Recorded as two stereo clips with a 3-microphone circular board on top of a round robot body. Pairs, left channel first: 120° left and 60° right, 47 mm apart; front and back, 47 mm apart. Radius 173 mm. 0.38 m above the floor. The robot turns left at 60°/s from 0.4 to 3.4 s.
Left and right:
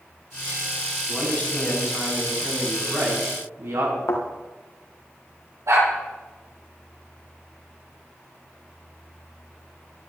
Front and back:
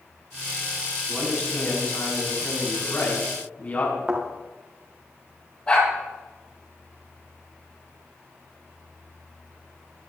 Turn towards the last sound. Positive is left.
turn(degrees=-70)